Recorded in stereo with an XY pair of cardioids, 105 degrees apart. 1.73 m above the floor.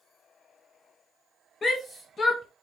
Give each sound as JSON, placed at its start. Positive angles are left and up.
{"t": 1.6, "sound": "a shout", "azimuth_deg": 40, "distance_m": 0.7}